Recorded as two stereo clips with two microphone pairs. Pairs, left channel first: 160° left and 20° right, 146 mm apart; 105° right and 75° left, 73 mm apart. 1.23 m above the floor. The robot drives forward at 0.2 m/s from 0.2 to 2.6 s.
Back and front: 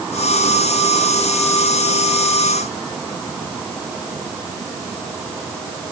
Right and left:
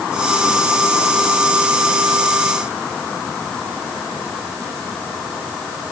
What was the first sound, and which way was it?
Only background noise.